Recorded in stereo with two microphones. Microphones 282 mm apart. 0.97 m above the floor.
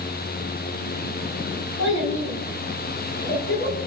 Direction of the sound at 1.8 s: 75° left (ahead or behind).